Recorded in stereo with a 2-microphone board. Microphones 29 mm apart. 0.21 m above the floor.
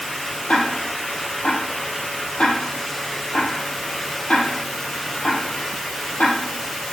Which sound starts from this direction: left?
Ticking, at 0.5 s.